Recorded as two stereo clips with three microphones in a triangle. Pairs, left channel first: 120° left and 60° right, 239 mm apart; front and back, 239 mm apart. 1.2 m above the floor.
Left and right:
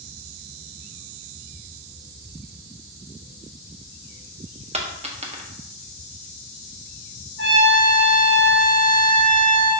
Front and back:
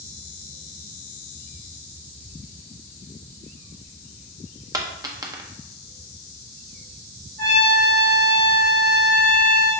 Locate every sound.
4.7 s a dropped coin: 110° right, 0.8 m
7.4 s a trumpet: 135° left, 2 m